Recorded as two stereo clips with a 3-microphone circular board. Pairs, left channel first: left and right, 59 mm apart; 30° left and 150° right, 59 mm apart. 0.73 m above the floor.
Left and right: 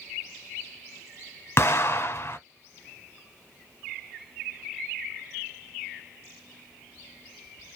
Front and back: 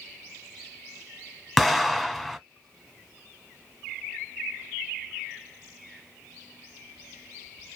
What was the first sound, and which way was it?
An explosion, 120° left.